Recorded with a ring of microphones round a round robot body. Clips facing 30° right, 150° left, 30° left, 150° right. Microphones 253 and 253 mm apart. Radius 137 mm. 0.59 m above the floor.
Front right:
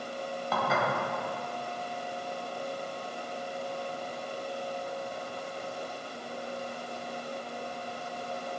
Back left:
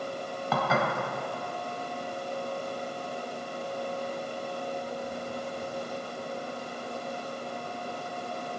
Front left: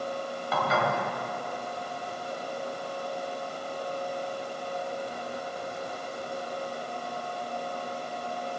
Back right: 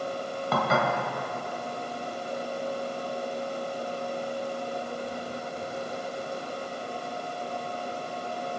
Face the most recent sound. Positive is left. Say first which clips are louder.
# back left 3 dB, back right 2 dB
turn(degrees=165)